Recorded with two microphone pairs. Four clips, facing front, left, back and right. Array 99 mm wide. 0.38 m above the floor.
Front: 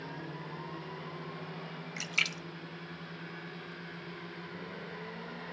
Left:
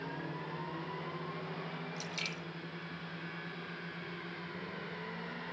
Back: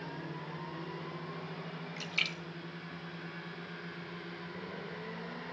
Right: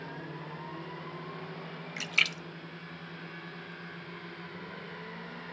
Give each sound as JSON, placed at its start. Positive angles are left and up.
{"t": 2.0, "sound": "a splash", "azimuth_deg": -75, "distance_m": 1.0}